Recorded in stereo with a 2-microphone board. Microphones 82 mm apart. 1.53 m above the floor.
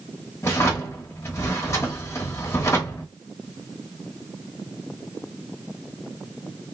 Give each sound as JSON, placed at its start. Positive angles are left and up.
{"t": 0.4, "sound": "a drawer", "side_deg": 35, "distance_m": 0.9}